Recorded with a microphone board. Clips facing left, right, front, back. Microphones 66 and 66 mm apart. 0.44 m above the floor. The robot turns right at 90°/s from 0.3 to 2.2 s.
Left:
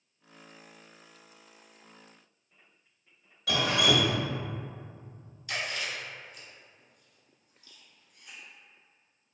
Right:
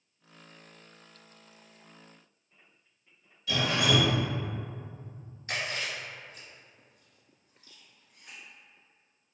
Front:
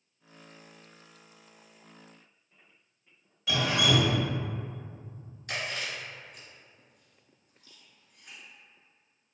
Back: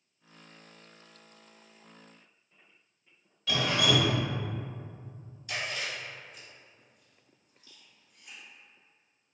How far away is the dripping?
About 0.7 m.